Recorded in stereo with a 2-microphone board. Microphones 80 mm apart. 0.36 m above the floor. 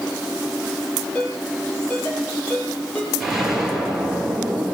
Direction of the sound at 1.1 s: 20° left (ahead or behind).